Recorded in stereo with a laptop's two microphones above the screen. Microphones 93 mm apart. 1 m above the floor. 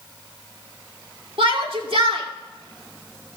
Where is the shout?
70° right (ahead or behind), 2 m.